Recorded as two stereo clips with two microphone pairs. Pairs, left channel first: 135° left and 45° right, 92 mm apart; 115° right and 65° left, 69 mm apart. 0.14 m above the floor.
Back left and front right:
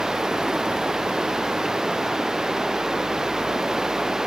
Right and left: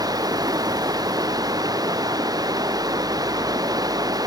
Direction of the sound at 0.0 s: 40° left.